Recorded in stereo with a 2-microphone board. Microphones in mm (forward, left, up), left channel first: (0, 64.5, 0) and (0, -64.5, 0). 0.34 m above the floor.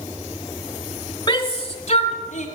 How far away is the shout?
About 1.0 m.